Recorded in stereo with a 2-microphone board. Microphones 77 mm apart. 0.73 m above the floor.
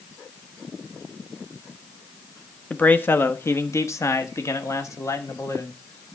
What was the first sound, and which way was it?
A man speaking, 20° left (ahead or behind).